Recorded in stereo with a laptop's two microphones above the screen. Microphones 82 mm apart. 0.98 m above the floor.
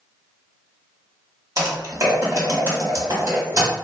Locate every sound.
1.6 s typing on a keyboard: 40° right (ahead or behind), 1.2 m